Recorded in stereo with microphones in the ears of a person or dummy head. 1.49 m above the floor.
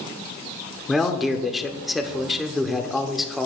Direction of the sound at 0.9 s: Centre (ahead or behind).